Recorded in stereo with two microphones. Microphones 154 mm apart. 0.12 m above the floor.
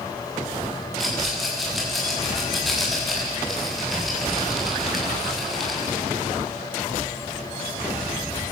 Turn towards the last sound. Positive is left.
turn(degrees=0)  # may be behind; listen again after turning